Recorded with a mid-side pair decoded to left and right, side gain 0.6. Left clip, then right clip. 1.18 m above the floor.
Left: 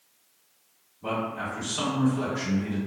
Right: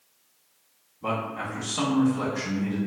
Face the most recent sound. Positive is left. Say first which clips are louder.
# right 1 dB
turn(degrees=-35)